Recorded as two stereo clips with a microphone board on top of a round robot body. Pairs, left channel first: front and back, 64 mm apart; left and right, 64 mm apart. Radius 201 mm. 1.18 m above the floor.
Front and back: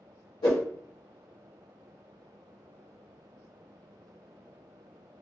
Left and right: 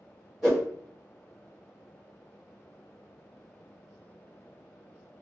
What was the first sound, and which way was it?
A whoosh, 5° right.